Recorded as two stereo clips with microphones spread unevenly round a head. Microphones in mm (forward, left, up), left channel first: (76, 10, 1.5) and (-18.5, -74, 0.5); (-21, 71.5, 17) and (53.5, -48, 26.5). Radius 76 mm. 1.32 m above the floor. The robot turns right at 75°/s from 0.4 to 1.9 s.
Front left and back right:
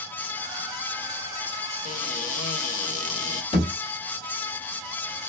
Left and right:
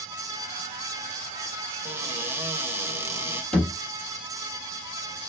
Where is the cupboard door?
15° left, 1.3 m; by 3.4 s 20° left, 1.3 m.